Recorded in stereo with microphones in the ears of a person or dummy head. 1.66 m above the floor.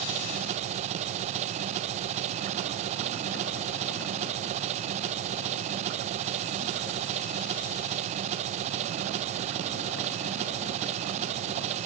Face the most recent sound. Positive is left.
turn(degrees=-45)  # may be behind; listen again after turning